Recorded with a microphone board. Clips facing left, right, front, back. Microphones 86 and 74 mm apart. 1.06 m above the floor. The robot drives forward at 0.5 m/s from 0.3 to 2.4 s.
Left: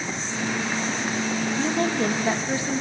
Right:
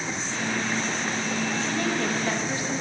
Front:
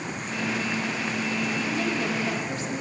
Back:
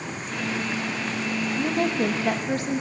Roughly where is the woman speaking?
Behind left.